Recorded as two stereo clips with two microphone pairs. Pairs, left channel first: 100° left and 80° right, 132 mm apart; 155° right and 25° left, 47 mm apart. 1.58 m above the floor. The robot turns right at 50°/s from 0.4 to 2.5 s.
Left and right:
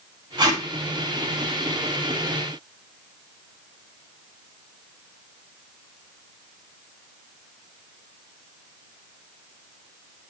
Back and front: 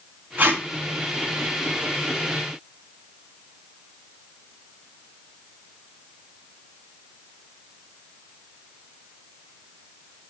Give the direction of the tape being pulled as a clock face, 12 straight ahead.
1 o'clock.